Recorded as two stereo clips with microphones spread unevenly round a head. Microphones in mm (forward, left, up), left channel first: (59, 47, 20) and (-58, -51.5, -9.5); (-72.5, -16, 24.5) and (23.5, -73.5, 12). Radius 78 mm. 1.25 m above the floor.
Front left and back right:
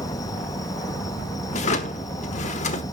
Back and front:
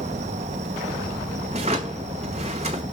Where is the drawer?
20° left, 1.4 m.